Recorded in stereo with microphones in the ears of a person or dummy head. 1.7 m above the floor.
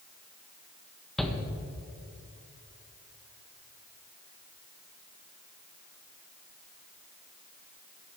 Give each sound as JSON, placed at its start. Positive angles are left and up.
{"t": 1.2, "sound": "a shout", "side_deg": -5, "distance_m": 1.4}